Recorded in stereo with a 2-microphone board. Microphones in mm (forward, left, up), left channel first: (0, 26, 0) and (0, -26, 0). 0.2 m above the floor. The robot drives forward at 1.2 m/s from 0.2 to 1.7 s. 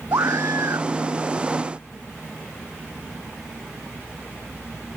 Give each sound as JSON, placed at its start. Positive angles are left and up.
{"t": 0.1, "sound": "a scream", "side_deg": -80}